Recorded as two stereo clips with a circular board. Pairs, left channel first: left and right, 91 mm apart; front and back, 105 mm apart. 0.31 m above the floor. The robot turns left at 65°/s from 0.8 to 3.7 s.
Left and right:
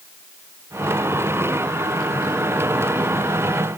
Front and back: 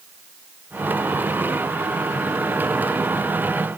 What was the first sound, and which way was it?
Only background noise.